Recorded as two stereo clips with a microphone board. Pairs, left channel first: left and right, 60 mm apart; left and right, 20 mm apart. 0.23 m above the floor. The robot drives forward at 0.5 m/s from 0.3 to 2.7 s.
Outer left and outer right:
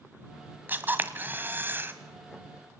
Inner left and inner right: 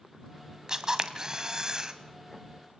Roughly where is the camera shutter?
Right.